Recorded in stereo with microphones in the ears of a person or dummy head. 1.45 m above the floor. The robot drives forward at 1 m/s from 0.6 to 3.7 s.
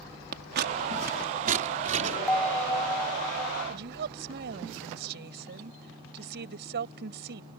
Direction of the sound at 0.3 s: 50° right (ahead or behind).